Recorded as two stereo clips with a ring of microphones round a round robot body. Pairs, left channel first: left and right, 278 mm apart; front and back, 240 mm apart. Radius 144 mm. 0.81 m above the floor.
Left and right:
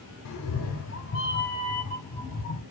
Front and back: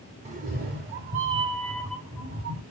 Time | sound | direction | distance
0.2 | a cat meowing | 120° left | 0.7 m